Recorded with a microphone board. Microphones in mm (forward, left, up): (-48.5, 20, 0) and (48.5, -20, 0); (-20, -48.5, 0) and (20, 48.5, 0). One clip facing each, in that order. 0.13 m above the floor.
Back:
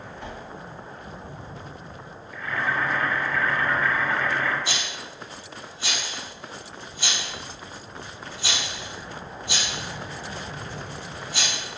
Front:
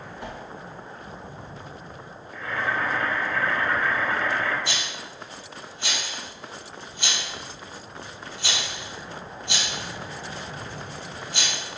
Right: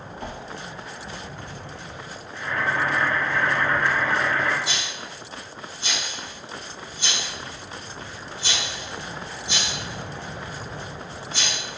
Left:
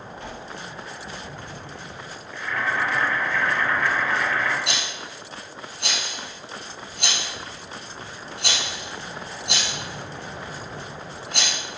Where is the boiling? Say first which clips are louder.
Even, right 1 dB; 75° right, 3 m.